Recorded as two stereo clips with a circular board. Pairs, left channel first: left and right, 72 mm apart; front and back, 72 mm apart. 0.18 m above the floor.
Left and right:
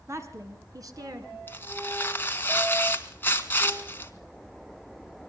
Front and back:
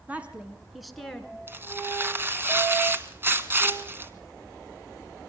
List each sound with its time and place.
0.1 s a woman speaking: 120° right, 2 m; by 1.4 s 80° right, 3 m
1.5 s tearing paper: 135° left, 1.6 m